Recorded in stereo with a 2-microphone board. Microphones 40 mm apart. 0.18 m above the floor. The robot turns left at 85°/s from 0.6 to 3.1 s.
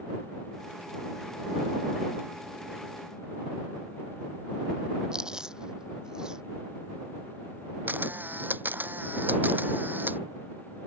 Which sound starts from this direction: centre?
Chewing, at 5.1 s.